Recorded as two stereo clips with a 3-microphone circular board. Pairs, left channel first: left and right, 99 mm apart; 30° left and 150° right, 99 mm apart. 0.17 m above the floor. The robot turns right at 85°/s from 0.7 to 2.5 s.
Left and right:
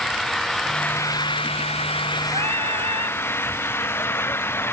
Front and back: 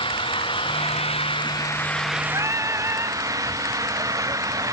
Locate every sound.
0.0 s an engine running: 5° left; by 4.8 s 155° left
2.3 s singing: 100° right; by 3.2 s 85° right